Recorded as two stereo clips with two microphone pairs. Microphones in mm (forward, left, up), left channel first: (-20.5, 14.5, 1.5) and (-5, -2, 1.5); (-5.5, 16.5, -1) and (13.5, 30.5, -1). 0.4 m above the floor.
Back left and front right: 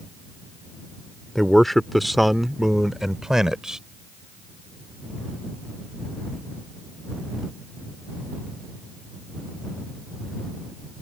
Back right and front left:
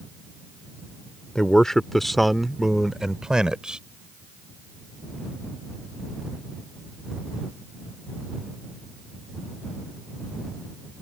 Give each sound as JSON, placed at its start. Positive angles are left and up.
{"t": 1.4, "sound": "a man speaking", "azimuth_deg": -170}